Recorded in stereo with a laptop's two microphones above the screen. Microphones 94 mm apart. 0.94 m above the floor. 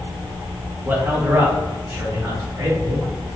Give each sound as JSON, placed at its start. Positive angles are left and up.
{"t": 0.8, "sound": "a man speaking", "side_deg": -20, "distance_m": 0.6}